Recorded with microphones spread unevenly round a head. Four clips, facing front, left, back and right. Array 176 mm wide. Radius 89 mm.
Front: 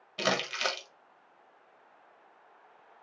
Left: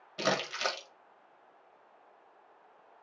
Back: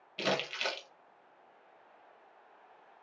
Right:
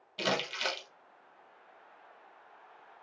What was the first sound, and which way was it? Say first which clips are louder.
Crumpling: left 2 dB, front 3 dB; straight ahead.